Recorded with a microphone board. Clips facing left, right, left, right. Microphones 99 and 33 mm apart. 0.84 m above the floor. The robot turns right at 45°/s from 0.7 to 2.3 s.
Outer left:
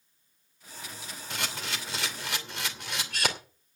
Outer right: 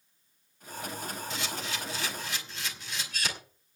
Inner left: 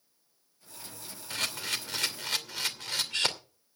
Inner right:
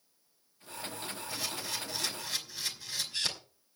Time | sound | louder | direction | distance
1.3 | a camera shutter | outer left 4 dB, inner left 6 dB | 65° left (ahead or behind) | 2.5 m